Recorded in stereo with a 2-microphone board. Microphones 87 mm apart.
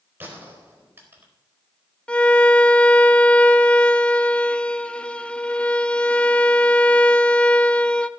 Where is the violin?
15° left (ahead or behind), 0.6 m.